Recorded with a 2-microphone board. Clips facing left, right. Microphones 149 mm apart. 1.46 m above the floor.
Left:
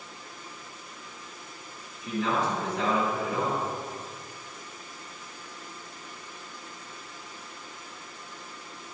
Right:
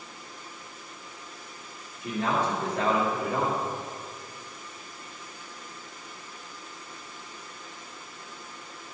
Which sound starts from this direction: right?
A man speaking, at 2.0 s.